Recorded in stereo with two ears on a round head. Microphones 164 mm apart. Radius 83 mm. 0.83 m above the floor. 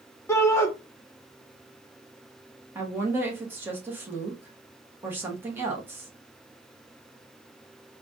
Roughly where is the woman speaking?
Centre.